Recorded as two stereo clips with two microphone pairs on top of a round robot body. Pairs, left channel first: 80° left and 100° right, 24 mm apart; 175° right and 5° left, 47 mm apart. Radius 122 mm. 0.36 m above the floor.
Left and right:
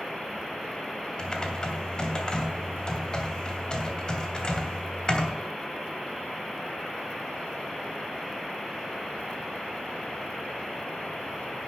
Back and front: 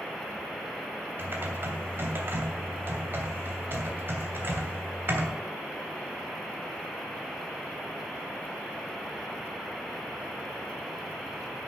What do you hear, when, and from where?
1.2 s typing on a keyboard: 35° left, 2.5 m